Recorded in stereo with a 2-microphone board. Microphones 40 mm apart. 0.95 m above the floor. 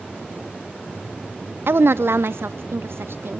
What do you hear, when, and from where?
1.7 s a woman speaking: 65° right (ahead or behind), 0.5 m; by 3.4 s 70° right (ahead or behind), 1.6 m